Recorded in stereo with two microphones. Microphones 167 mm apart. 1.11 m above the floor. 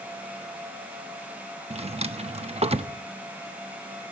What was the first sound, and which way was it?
A drawer, 40° right (ahead or behind).